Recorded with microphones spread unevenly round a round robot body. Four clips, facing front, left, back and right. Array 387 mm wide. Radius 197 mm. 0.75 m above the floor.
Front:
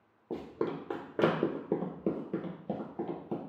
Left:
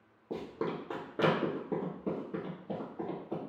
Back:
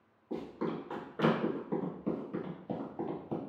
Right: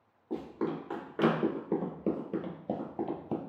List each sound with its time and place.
0.3 s running footsteps: 25° left, 1.3 m; by 3.4 s 95° right, 1.0 m